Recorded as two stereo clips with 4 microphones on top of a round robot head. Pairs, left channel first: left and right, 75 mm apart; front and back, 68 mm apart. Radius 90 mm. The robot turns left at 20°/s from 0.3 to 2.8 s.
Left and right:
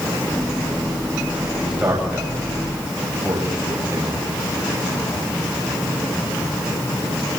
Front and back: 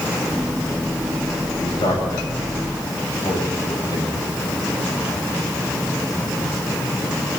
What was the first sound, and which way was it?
A man speaking, 10° right.